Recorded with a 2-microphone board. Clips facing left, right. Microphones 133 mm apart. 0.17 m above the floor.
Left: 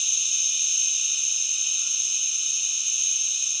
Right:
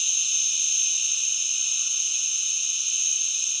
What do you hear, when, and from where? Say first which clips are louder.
0.0 s an insect: right 1 dB; 25° right (ahead or behind), 3.5 m